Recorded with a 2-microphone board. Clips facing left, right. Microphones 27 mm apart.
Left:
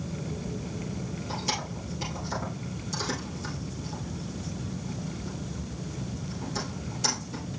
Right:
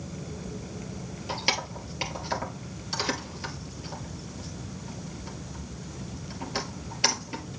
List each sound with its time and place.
1.3 s keys jangling: 50° right (ahead or behind), 2.5 m